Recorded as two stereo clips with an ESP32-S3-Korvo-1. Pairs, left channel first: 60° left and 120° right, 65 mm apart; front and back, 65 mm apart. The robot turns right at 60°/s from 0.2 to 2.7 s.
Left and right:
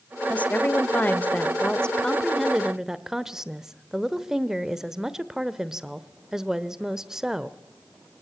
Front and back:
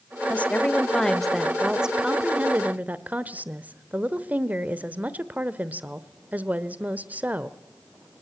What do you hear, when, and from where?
0.3 s a woman speaking: 25° left, 1.1 m; by 7.6 s 170° left, 1.1 m